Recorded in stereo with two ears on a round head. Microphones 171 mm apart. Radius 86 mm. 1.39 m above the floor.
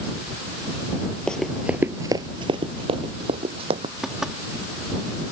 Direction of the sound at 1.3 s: 5° left (ahead or behind).